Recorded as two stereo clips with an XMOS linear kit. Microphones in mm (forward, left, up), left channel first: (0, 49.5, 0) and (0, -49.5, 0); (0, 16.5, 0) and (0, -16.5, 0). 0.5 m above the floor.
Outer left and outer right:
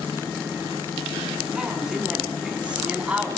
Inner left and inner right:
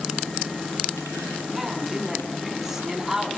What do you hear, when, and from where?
1.6 s a man speaking: 5° right (ahead or behind), 6 m; by 3.4 s 15° right (ahead or behind), 5 m